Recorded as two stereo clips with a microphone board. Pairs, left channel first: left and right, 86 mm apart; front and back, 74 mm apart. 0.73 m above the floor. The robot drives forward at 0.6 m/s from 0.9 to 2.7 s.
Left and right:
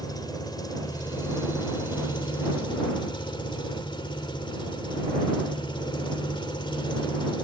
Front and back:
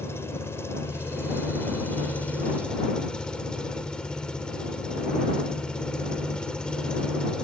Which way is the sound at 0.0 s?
55° left.